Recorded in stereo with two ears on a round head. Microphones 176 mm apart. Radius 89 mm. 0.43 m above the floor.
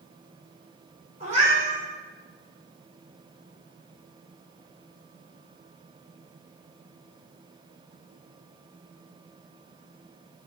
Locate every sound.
1.2 s a cat meowing: 35° right (ahead or behind), 1.9 m